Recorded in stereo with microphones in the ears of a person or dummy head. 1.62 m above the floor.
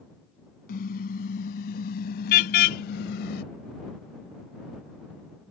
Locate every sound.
0.7 s a car horn: 55° left (ahead or behind); by 3.4 s 60° left (ahead or behind)